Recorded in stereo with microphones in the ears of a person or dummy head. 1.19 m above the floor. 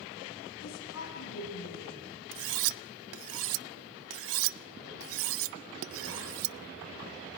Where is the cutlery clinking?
65° right (ahead or behind), 0.5 m.